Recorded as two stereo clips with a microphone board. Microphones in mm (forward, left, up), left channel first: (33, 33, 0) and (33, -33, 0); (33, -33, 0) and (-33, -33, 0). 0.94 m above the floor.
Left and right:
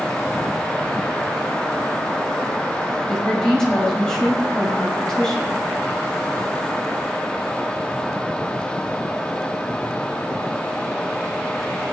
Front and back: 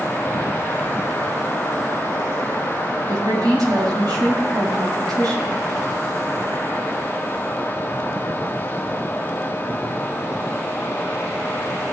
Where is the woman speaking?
170° left, 6.5 m.